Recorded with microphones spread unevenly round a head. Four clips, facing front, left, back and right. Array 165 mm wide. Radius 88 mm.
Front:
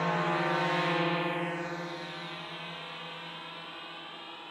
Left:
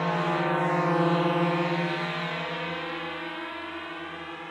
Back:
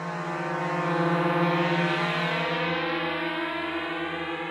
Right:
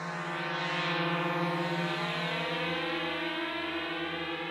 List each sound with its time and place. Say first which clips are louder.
0.0 s a drone: left 10 dB, front 2 dB; 70° left; by 4.5 s 160° right